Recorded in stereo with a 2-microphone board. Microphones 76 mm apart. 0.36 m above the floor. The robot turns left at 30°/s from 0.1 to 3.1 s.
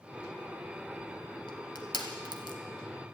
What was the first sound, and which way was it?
Crushing, 70° left (ahead or behind).